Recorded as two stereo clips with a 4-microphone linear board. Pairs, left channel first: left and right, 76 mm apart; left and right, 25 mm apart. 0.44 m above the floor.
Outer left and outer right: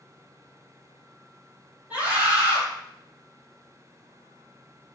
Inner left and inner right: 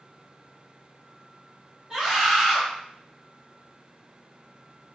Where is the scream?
20° right (ahead or behind), 1.2 m.